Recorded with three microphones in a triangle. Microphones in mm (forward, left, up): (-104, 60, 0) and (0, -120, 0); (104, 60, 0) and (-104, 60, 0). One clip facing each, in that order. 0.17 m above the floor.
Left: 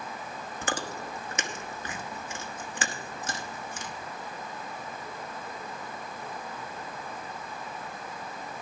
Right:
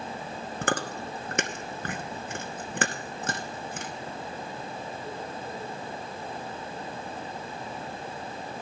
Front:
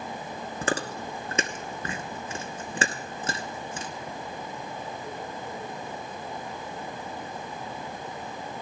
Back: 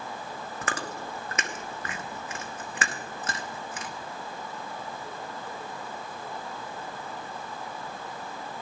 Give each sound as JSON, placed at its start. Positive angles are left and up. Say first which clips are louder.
{"t": 0.6, "sound": "chewing", "louder": "right 4 dB, front 6 dB", "azimuth_deg": -55, "distance_m": 1.1}